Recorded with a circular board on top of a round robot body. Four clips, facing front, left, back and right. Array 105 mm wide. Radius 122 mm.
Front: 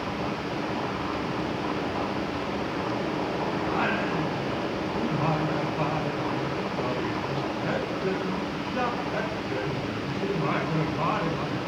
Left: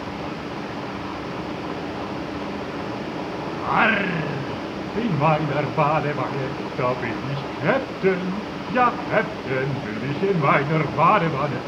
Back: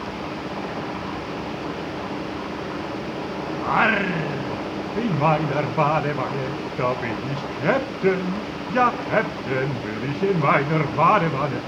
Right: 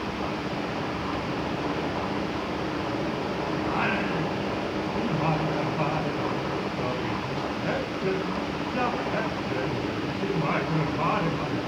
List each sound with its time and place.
3.6 s singing: 135° left, 1.6 m